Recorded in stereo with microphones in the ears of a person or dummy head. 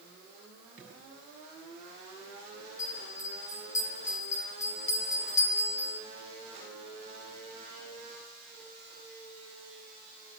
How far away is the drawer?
About 9 m.